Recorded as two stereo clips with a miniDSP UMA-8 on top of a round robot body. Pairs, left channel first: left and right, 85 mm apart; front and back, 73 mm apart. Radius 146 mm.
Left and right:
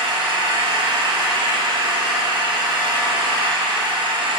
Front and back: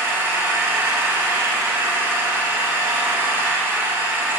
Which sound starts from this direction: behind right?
An engine running, at 0.0 s.